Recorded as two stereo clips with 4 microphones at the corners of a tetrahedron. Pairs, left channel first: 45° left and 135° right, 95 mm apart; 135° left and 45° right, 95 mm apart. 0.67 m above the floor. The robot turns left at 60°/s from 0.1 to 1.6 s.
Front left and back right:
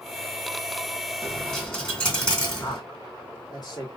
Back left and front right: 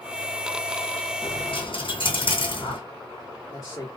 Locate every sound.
1.2 s a dropped coin: 145° left, 1.5 m; by 2.8 s 125° left, 1.5 m
2.6 s a man speaking: 85° left, 1.4 m